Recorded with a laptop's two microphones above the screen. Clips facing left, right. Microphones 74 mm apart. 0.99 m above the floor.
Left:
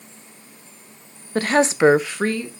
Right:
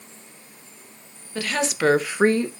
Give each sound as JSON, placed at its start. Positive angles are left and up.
{"t": 1.4, "sound": "a woman speaking", "side_deg": 40, "distance_m": 1.2}